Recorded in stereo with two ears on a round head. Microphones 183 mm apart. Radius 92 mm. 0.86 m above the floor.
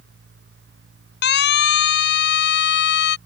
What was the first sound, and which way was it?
A siren, 55° left (ahead or behind).